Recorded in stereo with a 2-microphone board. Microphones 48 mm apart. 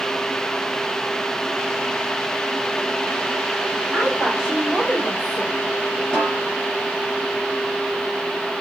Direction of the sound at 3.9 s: 15° right (ahead or behind).